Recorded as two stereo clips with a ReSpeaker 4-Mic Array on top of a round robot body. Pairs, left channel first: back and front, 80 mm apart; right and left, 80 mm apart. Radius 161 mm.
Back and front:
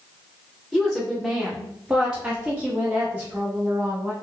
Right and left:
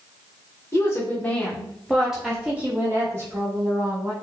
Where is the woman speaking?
100° right, 1.3 m; by 4.1 s 60° left, 1.8 m.